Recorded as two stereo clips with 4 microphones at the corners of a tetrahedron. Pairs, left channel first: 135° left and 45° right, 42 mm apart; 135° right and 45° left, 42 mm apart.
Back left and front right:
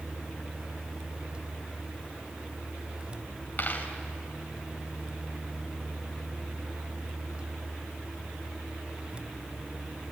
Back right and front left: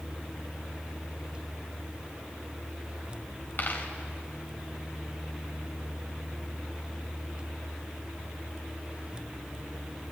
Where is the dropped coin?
175° right, 2.5 m.